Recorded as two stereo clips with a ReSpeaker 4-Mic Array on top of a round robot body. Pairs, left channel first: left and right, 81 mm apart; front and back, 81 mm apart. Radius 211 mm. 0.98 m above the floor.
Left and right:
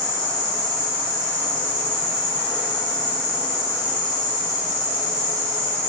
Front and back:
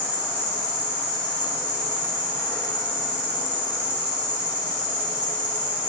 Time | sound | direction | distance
0.0 | an insect | 75° left | 2.0 m